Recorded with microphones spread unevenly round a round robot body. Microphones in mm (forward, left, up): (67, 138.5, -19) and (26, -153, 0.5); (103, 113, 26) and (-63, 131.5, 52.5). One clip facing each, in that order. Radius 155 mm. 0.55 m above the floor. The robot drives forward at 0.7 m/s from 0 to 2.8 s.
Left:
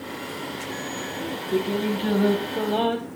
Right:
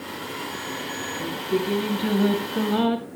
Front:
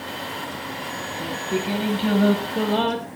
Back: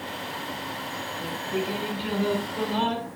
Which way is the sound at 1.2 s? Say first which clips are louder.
Even, front 3 dB; 25° right.